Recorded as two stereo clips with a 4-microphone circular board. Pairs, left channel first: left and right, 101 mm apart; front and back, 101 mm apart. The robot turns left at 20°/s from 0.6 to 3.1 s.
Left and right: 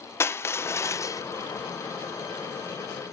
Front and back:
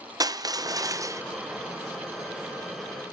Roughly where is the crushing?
Behind left.